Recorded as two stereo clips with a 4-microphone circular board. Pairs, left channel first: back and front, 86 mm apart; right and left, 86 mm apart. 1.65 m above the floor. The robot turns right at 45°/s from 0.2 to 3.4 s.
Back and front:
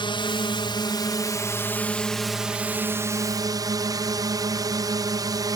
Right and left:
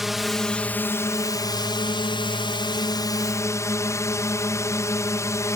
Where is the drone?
175° left; by 5.6 s 40° right.